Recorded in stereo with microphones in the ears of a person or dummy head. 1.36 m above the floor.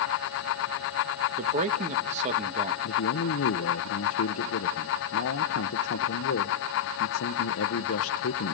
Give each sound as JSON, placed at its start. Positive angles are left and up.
{"t": 1.4, "sound": "a man speaking", "side_deg": -30, "distance_m": 1.4}
{"t": 2.8, "sound": "a man speaking", "side_deg": 75, "distance_m": 0.9}